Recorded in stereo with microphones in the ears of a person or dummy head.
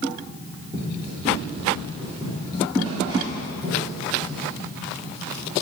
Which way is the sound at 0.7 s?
25° right (ahead or behind).